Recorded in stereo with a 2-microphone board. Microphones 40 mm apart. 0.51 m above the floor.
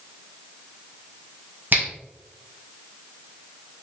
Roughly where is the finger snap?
Right.